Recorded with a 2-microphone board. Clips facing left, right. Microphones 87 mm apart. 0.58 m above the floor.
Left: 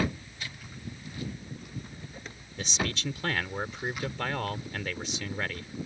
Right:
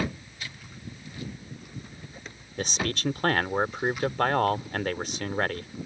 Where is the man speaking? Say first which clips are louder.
Right 3 dB; 50° right (ahead or behind).